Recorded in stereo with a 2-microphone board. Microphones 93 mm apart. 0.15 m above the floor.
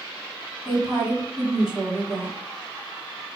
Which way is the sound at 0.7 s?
5° right (ahead or behind).